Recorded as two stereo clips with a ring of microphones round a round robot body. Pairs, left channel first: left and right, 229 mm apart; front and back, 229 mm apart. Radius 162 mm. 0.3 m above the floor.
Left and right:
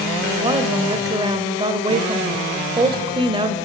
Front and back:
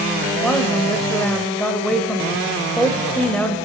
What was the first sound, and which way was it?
A woman speaking, 75° right.